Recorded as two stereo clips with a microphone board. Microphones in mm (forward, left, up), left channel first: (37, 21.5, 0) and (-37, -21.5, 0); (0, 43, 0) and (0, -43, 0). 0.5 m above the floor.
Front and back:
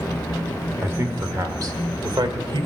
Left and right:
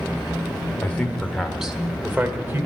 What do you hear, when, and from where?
0.8 s a man speaking: 155° left, 1.3 m; by 2.7 s 145° right, 1.7 m